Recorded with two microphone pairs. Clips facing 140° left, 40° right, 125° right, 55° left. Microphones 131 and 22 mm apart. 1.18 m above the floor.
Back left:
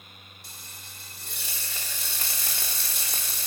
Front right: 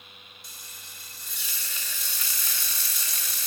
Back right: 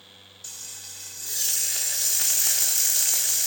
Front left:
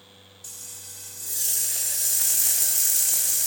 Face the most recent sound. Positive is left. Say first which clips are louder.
# back left 2 dB, back right 2 dB
turn(degrees=165)